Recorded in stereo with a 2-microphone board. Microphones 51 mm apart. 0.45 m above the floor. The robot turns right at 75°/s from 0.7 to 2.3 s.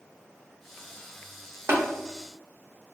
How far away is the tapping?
About 0.9 m.